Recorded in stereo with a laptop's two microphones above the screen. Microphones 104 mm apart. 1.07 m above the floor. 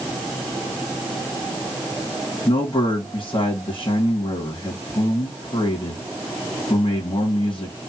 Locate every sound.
2.5 s a man speaking: 60° left (ahead or behind), 2.0 m